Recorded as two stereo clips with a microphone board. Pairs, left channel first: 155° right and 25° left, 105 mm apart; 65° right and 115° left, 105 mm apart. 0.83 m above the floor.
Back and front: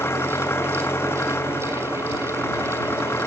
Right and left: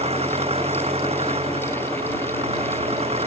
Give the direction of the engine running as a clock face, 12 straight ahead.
8 o'clock.